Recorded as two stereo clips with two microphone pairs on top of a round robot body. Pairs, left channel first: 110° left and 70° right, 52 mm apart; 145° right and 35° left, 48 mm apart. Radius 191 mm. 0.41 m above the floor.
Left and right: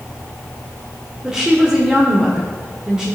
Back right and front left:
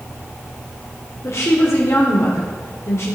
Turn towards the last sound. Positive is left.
turn(degrees=-145)